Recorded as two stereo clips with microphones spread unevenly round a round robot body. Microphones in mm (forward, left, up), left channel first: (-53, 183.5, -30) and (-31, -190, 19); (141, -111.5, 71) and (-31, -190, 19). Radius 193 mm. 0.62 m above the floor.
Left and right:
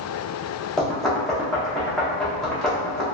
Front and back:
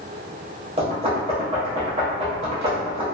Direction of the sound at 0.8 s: 175° left.